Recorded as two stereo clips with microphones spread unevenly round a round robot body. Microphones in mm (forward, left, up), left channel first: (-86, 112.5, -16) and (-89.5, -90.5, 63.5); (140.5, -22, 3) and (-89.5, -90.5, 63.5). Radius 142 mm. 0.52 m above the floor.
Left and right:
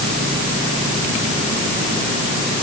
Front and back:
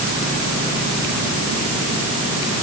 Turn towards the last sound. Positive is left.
No sound to turn to.